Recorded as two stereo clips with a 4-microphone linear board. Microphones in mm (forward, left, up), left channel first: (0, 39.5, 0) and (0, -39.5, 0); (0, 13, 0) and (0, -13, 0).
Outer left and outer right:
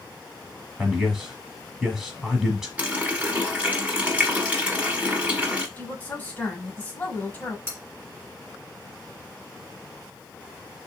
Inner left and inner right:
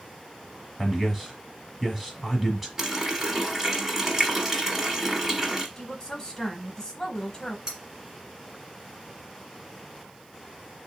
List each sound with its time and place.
0.8 s a man speaking: 5° right (ahead or behind), 1.1 m
2.8 s a running tap: 15° right (ahead or behind), 0.9 m
5.8 s a woman speaking: 20° left (ahead or behind), 1.2 m
7.7 s cutlery clinking: 30° right (ahead or behind), 1.4 m